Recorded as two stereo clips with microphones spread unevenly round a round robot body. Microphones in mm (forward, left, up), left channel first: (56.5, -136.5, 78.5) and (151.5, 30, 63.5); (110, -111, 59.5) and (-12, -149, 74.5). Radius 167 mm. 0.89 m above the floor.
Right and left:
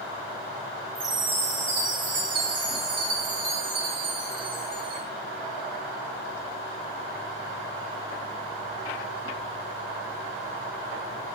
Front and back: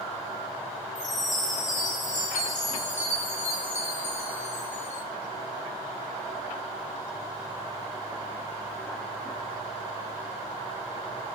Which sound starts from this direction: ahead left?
A chime, at 0.9 s.